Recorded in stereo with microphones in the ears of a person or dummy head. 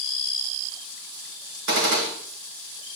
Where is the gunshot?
65° right (ahead or behind), 2.5 m.